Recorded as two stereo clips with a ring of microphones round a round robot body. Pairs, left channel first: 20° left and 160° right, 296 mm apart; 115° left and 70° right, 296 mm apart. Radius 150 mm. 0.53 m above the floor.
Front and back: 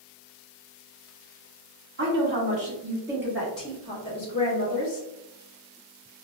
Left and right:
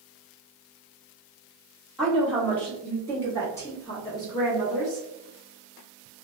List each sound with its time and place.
2.0 s a woman speaking: 160° right, 1.3 m; by 5.1 s 45° left, 1.3 m